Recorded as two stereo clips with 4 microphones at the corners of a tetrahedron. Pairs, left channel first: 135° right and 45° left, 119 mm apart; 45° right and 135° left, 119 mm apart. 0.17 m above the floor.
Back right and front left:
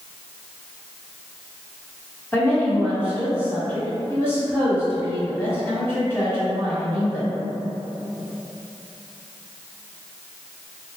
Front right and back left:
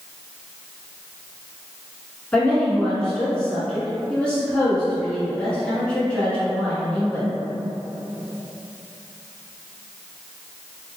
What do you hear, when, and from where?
2.3 s a woman speaking: 110° right, 1.3 m